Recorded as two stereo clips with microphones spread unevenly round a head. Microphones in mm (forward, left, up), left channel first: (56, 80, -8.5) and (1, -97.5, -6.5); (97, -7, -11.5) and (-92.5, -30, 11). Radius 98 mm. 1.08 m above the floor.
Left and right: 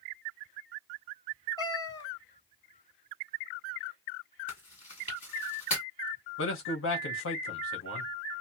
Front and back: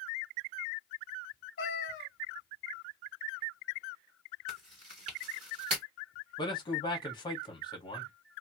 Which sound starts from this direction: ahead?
A cat meowing, at 1.6 s.